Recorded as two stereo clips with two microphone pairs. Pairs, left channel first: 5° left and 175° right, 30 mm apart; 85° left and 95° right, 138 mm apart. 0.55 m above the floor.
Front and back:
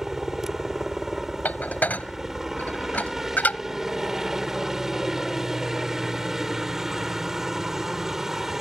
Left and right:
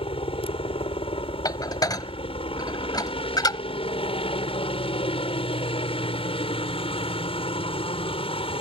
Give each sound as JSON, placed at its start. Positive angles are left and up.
{"t": 0.0, "sound": "a helicopter", "azimuth_deg": 110}
{"t": 1.4, "sound": "dishes clattering", "azimuth_deg": 25}